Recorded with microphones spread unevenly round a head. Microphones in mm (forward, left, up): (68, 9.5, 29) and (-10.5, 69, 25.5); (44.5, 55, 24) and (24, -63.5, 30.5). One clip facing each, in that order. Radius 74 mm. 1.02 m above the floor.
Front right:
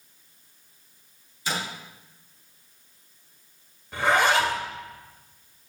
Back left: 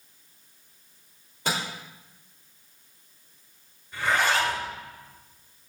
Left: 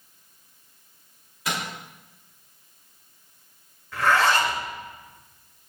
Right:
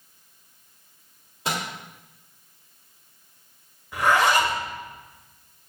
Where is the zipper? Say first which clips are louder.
Front right 3 dB, right 1 dB; 25° right, 2 m.